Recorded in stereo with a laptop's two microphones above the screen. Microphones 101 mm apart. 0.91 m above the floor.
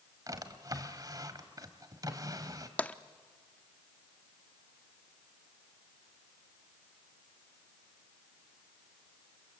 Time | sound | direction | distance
0.3 | a drawer | 40° right (ahead or behind) | 1.6 m
2.8 | tapping | 15° left (ahead or behind) | 0.5 m